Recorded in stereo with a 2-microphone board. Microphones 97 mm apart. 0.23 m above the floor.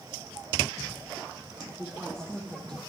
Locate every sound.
1.6 s a woman speaking: 10° left (ahead or behind), 5.5 m; by 2.8 s 5° left (ahead or behind), 4 m